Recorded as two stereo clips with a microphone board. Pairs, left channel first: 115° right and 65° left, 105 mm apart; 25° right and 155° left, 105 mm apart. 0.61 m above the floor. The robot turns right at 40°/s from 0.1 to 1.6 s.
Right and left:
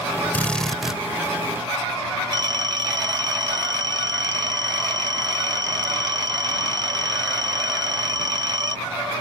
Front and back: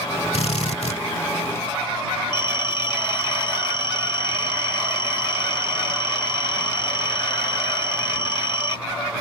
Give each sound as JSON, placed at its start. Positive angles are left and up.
{"t": 0.3, "sound": "a drill", "azimuth_deg": -40}
{"t": 2.3, "sound": "a phone ringing", "azimuth_deg": 20}